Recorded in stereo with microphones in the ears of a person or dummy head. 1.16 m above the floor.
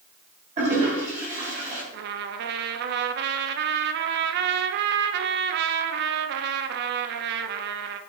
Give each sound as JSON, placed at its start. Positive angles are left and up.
{"t": 0.6, "sound": "a toilet flushing", "side_deg": -30, "distance_m": 4.5}
{"t": 1.9, "sound": "a trumpet", "side_deg": -70, "distance_m": 0.6}